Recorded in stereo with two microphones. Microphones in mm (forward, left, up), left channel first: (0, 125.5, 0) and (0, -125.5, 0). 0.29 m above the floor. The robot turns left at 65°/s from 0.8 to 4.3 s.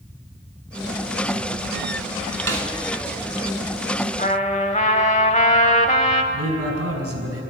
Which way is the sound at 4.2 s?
30° left (ahead or behind).